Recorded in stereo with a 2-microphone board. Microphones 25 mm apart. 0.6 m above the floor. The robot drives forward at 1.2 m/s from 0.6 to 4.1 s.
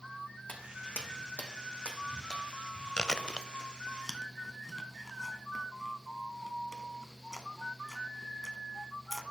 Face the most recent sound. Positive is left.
turn(degrees=10)  # may be behind; listen again after turning